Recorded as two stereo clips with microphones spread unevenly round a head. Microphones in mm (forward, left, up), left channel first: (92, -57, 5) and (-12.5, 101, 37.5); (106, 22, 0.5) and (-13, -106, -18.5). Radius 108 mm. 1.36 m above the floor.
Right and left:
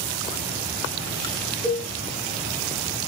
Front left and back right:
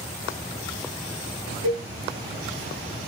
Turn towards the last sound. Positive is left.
turn(degrees=-130)